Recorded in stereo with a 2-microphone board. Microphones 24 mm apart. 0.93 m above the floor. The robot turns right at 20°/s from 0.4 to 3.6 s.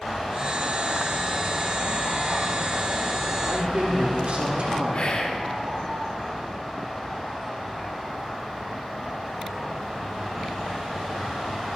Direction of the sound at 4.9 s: 50° left (ahead or behind).